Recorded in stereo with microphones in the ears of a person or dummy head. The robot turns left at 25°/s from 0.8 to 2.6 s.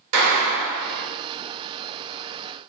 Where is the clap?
75° right (ahead or behind), 2 m; by 1.0 s 80° right, 2 m.